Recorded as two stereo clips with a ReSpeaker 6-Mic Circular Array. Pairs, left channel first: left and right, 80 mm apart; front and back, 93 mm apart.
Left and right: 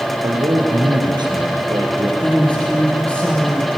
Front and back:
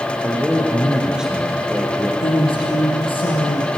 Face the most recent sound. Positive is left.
turn(degrees=15)